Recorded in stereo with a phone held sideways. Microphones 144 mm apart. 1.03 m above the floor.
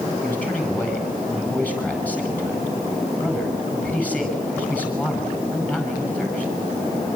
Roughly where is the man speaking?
Centre.